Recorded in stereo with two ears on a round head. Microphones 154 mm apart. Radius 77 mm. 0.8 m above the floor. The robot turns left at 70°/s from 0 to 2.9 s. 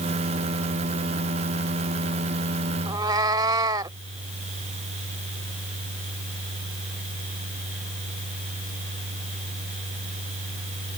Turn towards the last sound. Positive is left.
turn(degrees=-25)  # may be behind; listen again after turning